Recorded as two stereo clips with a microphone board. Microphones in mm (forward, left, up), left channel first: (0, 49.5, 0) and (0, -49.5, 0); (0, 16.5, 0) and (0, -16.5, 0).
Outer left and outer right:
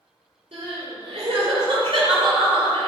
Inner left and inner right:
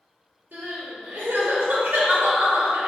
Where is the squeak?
I don't hear a squeak.